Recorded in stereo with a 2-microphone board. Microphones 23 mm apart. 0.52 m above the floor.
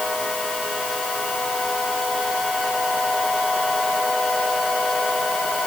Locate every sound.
Only background noise.